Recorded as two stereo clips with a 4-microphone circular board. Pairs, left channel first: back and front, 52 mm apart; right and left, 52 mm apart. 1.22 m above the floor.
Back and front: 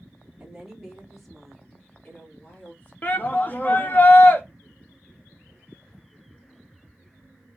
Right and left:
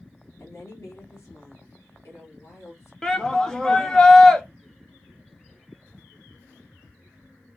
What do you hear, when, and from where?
0.4 s a woman speaking: 75° right, 1.9 m; by 2.9 s 125° right, 1.7 m
3.0 s a shout: 160° right, 0.6 m